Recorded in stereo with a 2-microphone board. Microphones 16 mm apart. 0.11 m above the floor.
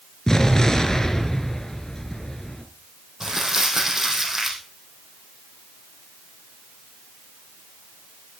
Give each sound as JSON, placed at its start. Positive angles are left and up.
{"t": 0.3, "sound": "an explosion", "side_deg": 35, "distance_m": 1.7}
{"t": 3.2, "sound": "crumpling", "side_deg": -25, "distance_m": 3.5}